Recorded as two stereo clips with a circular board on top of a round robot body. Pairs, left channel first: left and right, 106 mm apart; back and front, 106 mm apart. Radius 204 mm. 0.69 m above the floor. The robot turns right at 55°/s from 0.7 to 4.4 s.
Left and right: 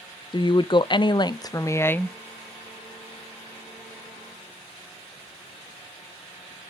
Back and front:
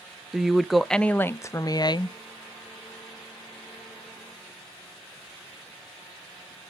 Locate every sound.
0.3 s a woman speaking: 85° left, 0.5 m; by 2.2 s 165° left, 0.5 m